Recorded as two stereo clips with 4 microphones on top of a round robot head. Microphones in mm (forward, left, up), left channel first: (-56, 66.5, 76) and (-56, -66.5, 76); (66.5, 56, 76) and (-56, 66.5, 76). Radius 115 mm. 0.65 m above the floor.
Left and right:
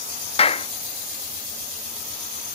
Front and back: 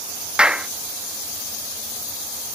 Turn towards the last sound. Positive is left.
turn(degrees=95)